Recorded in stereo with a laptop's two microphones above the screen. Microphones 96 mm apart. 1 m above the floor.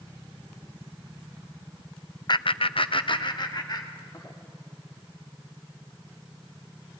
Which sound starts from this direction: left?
Laughter, at 2.3 s.